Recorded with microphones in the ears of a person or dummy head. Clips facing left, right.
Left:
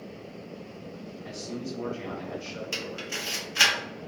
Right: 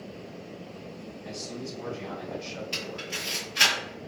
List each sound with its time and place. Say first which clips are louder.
1.2 s a man speaking: left 2 dB; 45° left (ahead or behind), 1.2 m
2.7 s a camera shutter: left 1 dB; 60° left (ahead or behind), 1.3 m